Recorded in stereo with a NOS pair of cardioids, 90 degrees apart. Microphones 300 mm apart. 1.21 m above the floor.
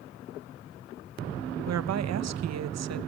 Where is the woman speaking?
60° right, 1.2 m.